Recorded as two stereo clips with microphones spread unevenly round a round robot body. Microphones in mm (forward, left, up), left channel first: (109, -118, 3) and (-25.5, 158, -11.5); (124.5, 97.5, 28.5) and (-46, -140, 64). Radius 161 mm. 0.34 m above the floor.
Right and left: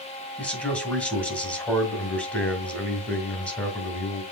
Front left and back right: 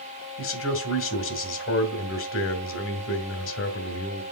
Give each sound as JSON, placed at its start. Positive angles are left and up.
{"t": 0.4, "sound": "a man speaking", "azimuth_deg": 25, "distance_m": 2.5}